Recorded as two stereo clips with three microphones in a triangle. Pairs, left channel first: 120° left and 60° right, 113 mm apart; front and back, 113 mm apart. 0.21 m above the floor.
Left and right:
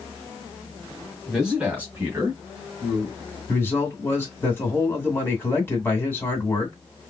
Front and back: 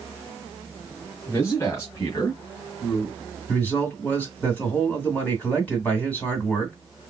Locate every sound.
1.3 s a man speaking: 25° left, 1.5 m; by 3.4 s 50° right, 2 m
3.5 s a man speaking: 65° left, 2 m